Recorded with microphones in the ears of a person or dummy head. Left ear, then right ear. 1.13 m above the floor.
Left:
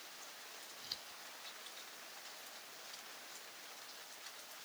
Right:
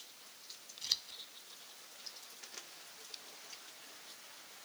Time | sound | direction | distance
0.8 | scissors | 40° right (ahead or behind) | ?